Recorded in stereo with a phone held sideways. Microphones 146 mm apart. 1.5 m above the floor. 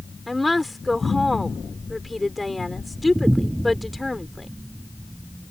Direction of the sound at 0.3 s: Centre (ahead or behind).